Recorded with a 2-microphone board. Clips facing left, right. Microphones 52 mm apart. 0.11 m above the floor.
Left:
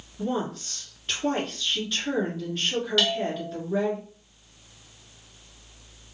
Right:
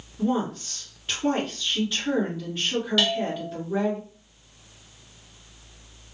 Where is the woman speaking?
5° right (ahead or behind), 1.3 m.